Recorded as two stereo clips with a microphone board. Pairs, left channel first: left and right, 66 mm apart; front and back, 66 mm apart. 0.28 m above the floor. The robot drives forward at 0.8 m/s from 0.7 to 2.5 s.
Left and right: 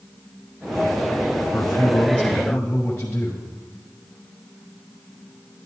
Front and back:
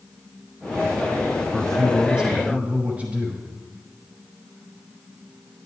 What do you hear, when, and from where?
1.5 s a man speaking: 55° left, 1.2 m; by 3.5 s 135° left, 1.3 m